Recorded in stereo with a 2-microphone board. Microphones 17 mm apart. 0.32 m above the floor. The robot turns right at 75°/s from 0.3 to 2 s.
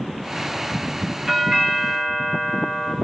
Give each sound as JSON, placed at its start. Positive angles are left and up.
{"t": 1.3, "sound": "a doorbell", "azimuth_deg": -115, "distance_m": 2.5}